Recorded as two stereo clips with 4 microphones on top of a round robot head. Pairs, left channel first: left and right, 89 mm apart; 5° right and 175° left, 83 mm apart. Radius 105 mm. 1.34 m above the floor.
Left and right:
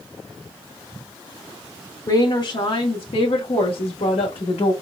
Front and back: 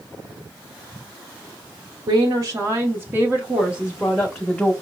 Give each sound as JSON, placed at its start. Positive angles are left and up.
{"t": 2.1, "sound": "a woman speaking", "azimuth_deg": 140, "distance_m": 0.9}